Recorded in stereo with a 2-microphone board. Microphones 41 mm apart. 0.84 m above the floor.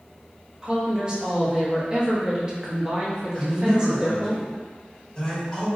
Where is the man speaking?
25° left (ahead or behind), 1.6 m.